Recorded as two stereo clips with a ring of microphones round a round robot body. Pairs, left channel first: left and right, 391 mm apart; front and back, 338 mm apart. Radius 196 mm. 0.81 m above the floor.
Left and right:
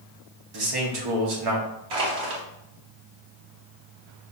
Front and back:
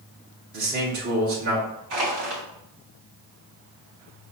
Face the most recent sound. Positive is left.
turn(degrees=-125)